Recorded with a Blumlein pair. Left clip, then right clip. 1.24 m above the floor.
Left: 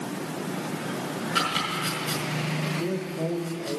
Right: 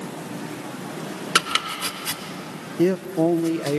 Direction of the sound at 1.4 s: 55° right.